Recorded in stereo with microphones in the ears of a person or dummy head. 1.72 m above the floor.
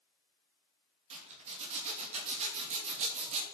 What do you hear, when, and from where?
1.1 s a zipper: 30° right (ahead or behind), 2.5 m